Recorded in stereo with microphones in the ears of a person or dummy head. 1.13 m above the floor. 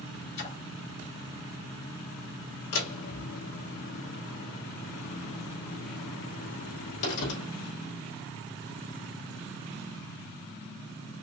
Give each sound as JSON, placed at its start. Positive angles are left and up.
{"t": 0.4, "sound": "a splash", "side_deg": 60, "distance_m": 1.9}
{"t": 2.7, "sound": "a door slam", "side_deg": 80, "distance_m": 2.5}